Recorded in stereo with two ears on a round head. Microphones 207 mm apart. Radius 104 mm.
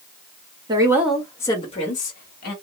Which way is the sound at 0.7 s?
20° right (ahead or behind).